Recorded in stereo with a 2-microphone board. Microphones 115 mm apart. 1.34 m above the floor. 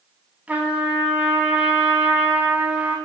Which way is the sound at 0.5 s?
15° right (ahead or behind).